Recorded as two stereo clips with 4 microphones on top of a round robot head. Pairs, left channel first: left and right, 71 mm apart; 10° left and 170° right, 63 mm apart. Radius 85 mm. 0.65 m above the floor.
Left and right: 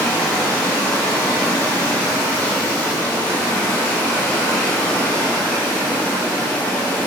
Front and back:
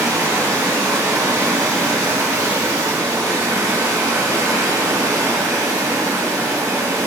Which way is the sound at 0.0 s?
155° left.